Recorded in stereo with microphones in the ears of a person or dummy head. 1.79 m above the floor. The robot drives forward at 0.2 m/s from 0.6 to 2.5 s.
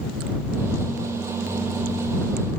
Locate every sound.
Only background noise.